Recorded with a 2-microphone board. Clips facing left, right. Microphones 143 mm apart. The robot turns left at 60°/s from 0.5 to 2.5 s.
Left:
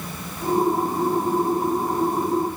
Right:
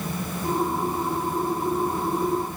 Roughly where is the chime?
No chime in this recording.